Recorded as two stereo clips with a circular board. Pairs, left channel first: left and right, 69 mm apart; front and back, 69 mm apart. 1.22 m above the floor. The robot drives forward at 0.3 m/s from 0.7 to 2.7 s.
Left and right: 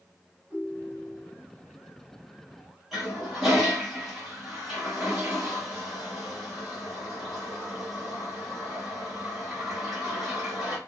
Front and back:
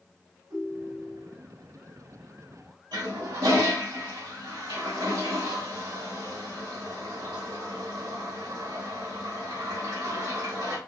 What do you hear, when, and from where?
0.5 s a ringtone: 175° right, 3 m
2.9 s a toilet flushing: 175° right, 2.5 m